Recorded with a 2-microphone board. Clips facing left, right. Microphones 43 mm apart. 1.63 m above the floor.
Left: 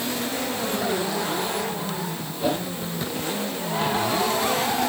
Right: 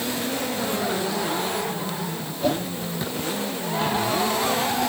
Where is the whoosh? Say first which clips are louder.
Right 1 dB; 10° left (ahead or behind), 1.3 m.